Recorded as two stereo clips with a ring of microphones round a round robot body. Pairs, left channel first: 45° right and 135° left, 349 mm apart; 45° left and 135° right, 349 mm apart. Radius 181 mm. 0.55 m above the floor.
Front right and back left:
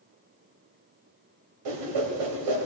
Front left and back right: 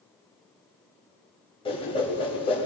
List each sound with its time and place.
1.6 s a whoosh: 120° left, 1.8 m